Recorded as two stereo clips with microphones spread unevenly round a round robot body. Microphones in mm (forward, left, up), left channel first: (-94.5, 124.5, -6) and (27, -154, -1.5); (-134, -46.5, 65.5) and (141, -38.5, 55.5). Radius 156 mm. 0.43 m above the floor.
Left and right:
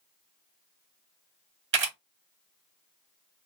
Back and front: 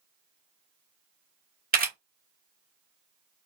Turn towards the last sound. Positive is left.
turn(degrees=-35)